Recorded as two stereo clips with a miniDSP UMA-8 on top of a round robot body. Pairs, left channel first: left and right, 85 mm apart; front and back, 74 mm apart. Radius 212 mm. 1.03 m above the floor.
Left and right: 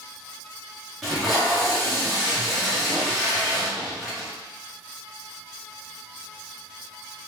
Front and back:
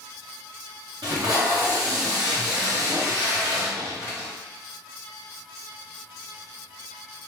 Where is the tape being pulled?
175° left, 0.6 m.